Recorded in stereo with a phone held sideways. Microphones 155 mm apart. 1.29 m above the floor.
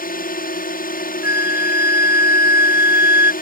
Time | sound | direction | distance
0.0 | a drone | 65° left (ahead or behind) | ?
1.2 | a flute | 15° right (ahead or behind) | ?